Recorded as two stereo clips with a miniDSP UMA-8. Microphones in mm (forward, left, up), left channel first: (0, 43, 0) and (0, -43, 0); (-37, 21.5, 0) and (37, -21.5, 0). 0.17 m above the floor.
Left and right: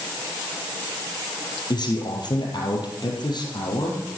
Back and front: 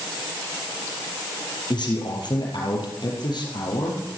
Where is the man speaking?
125° left, 4 m.